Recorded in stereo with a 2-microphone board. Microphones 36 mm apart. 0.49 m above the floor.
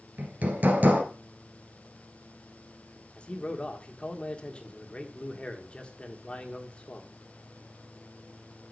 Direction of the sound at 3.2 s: 30° left (ahead or behind).